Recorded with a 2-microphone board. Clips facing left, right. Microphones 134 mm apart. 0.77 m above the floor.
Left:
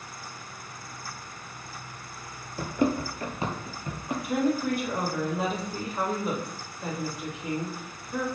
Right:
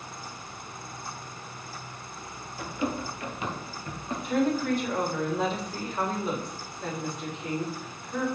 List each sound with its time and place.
2.6 s running footsteps: 55° left (ahead or behind), 1.2 m; by 4.1 s 15° left (ahead or behind), 1.5 m
4.2 s a woman speaking: 10° left (ahead or behind), 3.5 m